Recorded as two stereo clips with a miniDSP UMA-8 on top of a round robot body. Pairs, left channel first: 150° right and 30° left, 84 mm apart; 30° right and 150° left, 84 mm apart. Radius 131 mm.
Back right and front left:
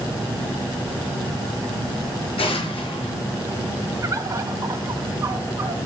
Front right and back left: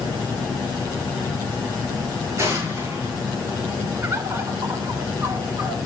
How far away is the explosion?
About 8 m.